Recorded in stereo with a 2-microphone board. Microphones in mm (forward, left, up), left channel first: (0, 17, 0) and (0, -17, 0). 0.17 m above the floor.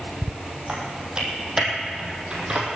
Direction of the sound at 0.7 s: 20° right (ahead or behind).